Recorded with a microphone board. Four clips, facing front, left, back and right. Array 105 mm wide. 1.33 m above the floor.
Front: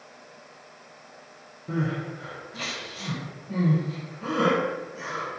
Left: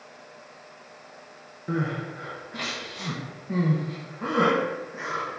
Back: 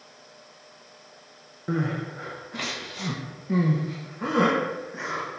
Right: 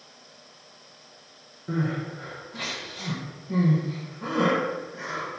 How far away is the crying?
About 0.5 m.